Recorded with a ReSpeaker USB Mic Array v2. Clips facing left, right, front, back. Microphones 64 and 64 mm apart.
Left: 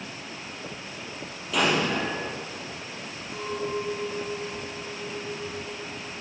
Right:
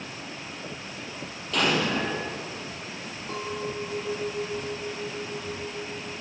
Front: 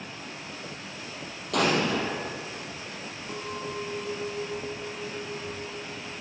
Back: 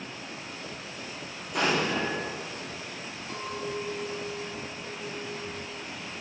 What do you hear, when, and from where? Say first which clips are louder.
1.5 s an explosion: left 1 dB, front 2 dB; 5° left, 3.5 m
3.3 s a clink: left 2 dB, back 1 dB; 75° right, 3 m